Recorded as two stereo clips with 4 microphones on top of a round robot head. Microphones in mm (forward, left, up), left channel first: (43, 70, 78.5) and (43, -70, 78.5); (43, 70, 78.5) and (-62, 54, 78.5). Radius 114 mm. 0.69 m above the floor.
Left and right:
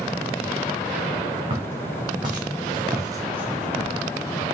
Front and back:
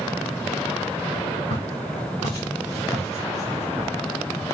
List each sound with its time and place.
1.5 s footsteps: 35° right, 3 m; by 3.9 s 145° left, 0.8 m